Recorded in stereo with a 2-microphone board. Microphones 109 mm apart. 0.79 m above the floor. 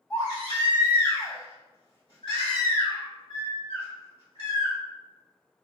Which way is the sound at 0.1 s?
50° left (ahead or behind).